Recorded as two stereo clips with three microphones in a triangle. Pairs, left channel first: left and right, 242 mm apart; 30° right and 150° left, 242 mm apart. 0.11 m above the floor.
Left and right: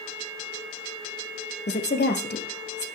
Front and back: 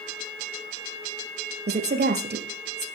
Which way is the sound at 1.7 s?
120° left.